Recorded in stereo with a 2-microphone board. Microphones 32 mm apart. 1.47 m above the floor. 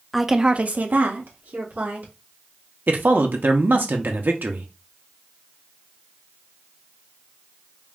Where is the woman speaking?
10° left (ahead or behind), 0.5 m; by 2.1 s 80° right, 1.8 m.